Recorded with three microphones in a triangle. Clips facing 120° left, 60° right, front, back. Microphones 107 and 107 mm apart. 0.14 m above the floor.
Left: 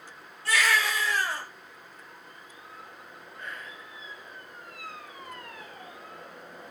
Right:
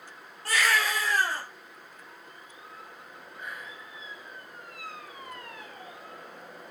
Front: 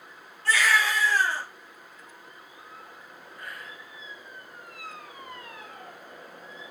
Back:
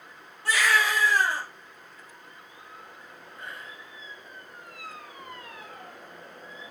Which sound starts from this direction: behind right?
Whispering, at 3.4 s.